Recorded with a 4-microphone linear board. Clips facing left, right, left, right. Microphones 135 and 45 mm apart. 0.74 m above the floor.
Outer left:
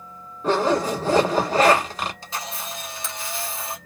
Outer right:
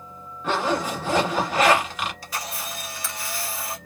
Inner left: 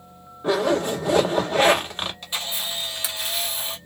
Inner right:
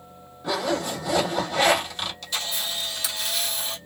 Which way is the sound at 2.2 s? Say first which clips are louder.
Even, inner left 1 dB; 25° left (ahead or behind).